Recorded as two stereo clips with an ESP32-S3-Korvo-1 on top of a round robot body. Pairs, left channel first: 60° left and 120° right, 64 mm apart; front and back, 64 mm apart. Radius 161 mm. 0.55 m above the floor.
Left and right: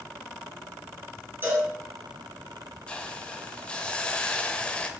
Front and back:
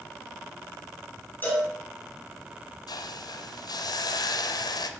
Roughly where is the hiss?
Ahead.